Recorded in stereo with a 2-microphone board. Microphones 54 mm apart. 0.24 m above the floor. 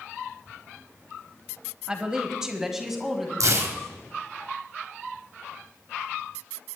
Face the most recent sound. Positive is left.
turn(degrees=-70)  # may be behind; listen again after turning